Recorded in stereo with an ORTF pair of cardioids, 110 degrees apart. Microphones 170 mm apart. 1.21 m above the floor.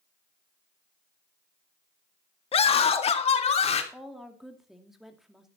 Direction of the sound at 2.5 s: 35° left.